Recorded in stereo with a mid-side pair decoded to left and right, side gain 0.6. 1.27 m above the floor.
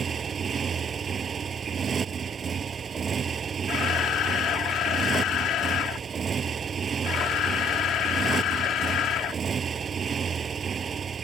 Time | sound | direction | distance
0.0 | a motorcycle | 35° right | ?
3.7 | a camera shutter | 55° left | ?